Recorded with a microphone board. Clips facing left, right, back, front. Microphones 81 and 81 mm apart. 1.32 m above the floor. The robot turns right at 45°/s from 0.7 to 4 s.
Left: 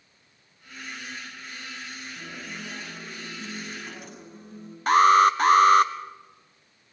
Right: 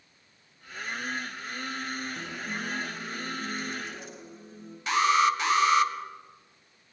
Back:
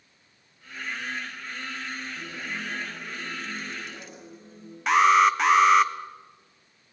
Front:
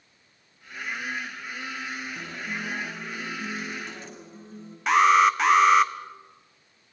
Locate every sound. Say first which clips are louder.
2.1 s a guitar: right 3 dB, front 1 dB; 25° right, 8 m; by 4.8 s 55° left, 8 m
4.9 s an alarm: left 6 dB, even; 90° left, 1.4 m